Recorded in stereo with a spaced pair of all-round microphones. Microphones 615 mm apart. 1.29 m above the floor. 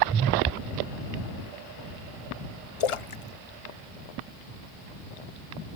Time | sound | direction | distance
2.8 | a splash | 55° left (ahead or behind) | ?